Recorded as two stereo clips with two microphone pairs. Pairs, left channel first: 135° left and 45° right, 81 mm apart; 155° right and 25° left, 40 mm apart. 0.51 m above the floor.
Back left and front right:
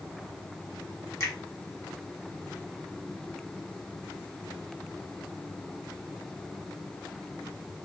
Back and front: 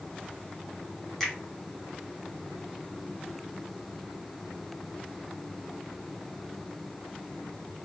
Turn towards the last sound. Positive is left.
turn(degrees=130)